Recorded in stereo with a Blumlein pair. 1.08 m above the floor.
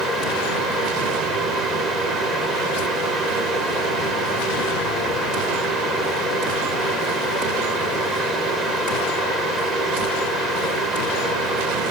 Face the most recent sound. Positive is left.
turn(degrees=-10)